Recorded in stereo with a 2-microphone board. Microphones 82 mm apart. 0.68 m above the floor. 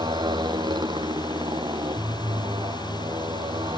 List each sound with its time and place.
0.0 s a motorcycle: 60° right (ahead or behind); by 3.8 s 65° right (ahead or behind)